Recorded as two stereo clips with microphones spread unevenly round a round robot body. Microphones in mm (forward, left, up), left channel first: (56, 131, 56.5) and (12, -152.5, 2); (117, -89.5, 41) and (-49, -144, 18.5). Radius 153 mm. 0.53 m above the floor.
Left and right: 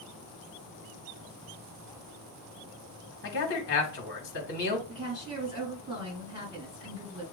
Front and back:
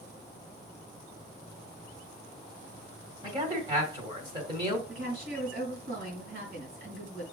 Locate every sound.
3.2 s a man speaking: 135° left, 1.5 m
4.9 s a woman speaking: straight behind, 4 m